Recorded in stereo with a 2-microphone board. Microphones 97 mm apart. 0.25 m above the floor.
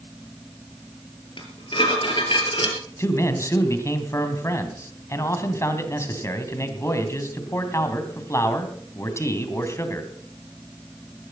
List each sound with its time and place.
1.4 s dishes clattering: 60° left (ahead or behind), 3.5 m
3.0 s a man speaking: 30° left (ahead or behind), 2.5 m